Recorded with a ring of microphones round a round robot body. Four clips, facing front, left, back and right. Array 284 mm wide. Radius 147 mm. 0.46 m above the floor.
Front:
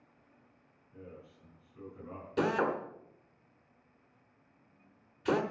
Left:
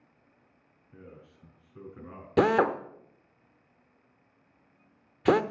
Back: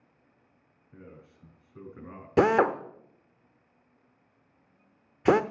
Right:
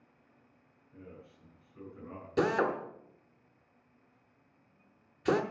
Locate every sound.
0.9 s a man speaking: 145° left, 6.5 m
2.4 s a drill: 150° left, 1.0 m